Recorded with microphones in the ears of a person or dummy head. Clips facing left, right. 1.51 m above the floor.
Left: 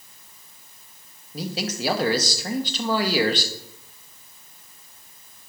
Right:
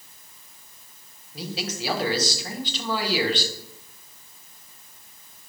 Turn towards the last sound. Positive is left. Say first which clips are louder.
# left 3 dB
turn(degrees=40)  # may be behind; listen again after turning